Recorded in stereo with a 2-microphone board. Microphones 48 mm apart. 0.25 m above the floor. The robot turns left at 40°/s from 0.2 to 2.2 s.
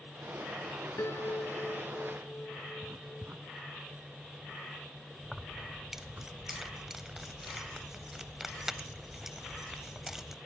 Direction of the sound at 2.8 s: 50° right (ahead or behind).